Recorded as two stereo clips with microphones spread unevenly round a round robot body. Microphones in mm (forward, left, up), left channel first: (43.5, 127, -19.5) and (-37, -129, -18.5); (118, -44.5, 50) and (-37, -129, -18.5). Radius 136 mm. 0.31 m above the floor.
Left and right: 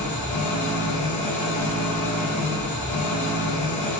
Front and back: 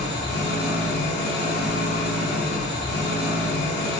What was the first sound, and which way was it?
An engine running, 30° left.